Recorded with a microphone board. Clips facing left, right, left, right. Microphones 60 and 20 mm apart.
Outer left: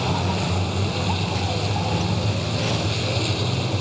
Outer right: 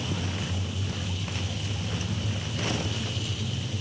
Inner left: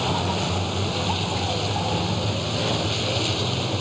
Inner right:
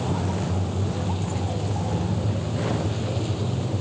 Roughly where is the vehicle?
Left.